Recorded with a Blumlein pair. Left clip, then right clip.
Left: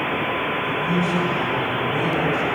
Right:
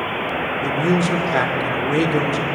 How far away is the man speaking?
About 2 m.